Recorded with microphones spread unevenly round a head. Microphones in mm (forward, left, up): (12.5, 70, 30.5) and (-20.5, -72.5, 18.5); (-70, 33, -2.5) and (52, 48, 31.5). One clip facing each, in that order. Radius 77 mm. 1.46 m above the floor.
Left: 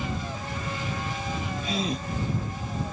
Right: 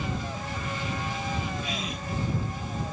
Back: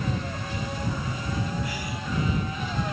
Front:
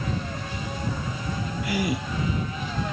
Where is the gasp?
20° left.